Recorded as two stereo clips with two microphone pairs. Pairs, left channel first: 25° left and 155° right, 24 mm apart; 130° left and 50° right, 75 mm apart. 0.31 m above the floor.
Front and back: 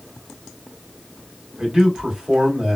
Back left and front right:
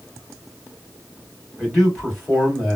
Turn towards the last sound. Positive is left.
turn(degrees=-145)